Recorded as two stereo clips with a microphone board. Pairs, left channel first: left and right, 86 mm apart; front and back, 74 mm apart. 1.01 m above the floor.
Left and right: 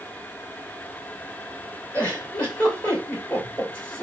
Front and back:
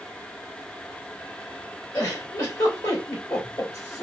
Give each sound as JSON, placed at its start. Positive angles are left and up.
{"t": 1.9, "sound": "a giggle", "azimuth_deg": 20, "distance_m": 2.0}